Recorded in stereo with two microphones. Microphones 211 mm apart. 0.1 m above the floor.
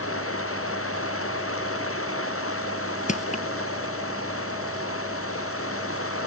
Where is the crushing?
35° left (ahead or behind).